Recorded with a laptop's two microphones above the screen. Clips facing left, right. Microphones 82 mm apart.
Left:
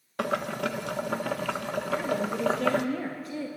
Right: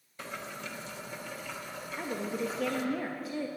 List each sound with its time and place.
0.2 s boiling: 75° left (ahead or behind), 0.5 m
2.0 s a woman speaking: 5° right (ahead or behind), 1.3 m